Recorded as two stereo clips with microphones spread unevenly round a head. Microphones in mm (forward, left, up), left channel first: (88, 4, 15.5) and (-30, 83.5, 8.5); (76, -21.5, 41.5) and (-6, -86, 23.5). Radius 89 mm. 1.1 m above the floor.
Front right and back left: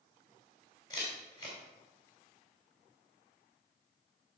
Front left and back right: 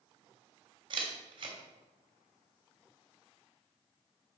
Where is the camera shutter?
105° right, 3 m.